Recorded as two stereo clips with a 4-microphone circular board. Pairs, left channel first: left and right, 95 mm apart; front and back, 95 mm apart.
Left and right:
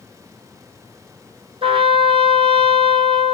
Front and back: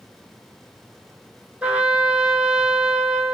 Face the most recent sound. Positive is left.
turn(degrees=-105)